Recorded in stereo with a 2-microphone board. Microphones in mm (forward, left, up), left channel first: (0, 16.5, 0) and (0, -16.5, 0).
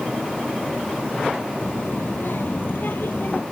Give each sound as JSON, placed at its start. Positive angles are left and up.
{"t": 1.6, "sound": "a child speaking", "side_deg": 75}